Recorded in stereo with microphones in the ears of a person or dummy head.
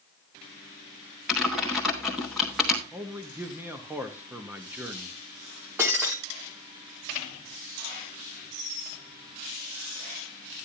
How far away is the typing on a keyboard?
About 1.2 m.